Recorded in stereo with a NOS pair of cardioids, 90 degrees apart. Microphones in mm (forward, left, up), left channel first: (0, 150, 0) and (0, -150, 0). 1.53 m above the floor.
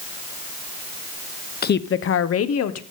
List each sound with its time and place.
1.6 s a woman speaking: 30° left, 0.7 m; by 2.8 s 55° left, 1.2 m